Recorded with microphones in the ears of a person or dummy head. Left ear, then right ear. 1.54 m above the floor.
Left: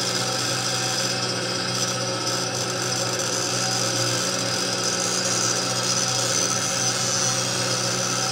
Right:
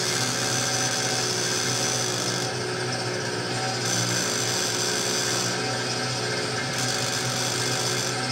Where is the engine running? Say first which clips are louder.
Left 1 dB; 50° left (ahead or behind), 8.5 m.